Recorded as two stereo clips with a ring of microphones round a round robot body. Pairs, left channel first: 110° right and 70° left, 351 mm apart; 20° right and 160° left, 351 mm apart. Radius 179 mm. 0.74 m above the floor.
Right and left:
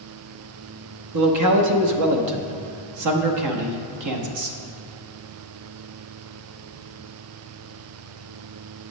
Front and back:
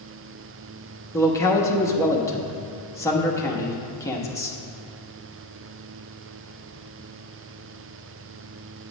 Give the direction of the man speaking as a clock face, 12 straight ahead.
10 o'clock.